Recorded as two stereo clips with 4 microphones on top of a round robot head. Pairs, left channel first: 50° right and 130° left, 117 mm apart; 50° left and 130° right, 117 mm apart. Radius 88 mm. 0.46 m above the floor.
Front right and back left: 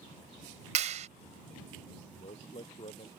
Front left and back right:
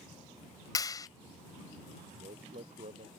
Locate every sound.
0.8 s a clap: 105° left
2.2 s a man speaking: 95° right